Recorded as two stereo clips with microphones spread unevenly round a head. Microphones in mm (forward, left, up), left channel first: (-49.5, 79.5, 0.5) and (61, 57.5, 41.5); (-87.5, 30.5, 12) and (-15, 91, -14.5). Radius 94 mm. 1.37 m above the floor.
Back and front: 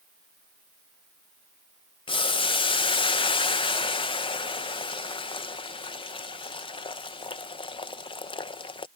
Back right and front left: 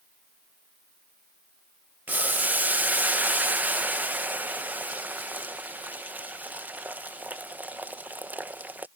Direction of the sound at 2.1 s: 120° left.